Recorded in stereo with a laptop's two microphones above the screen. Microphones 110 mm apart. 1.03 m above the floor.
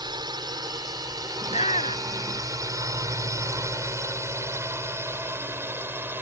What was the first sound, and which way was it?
A drone, 40° right (ahead or behind).